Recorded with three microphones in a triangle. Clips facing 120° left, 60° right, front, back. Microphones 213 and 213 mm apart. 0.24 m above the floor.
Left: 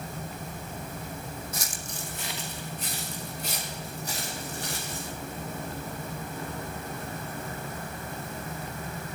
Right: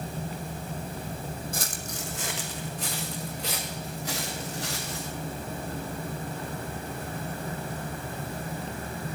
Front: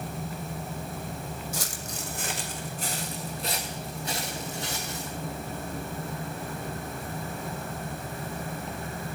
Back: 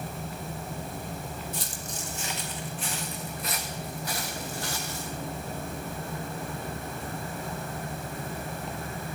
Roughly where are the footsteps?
Ahead.